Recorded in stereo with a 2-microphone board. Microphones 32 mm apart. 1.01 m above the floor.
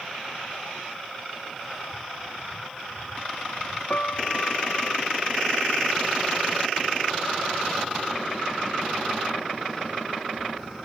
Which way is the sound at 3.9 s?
50° left (ahead or behind).